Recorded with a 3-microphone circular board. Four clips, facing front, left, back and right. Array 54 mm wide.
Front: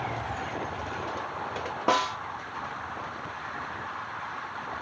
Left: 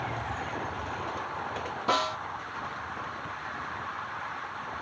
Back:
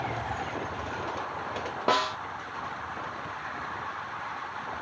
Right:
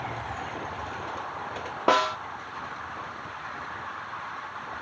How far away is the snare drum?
About 0.9 m.